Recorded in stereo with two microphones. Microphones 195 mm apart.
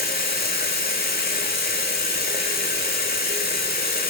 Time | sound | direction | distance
0.0 | running water | 50° left (ahead or behind) | 1.4 m